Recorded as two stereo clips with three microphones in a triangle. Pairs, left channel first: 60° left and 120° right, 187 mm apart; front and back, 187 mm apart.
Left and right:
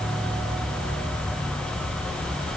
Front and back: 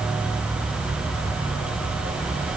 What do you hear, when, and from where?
Only background noise.